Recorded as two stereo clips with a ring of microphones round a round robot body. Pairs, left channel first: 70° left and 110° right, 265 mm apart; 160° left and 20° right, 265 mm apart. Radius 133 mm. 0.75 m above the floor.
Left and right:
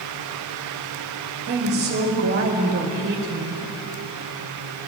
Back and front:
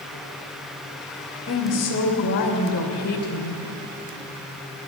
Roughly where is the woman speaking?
Behind.